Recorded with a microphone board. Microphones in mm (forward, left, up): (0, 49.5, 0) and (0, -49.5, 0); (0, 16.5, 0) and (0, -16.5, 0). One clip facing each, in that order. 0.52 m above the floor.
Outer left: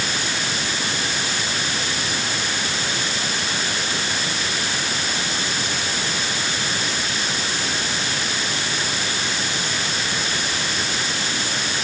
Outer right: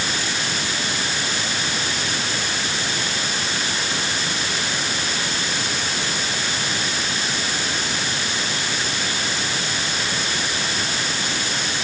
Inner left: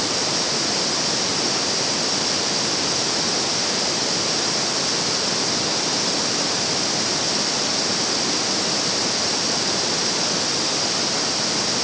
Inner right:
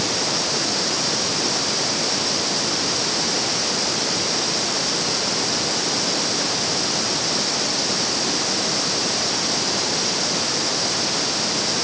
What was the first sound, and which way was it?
Only background noise.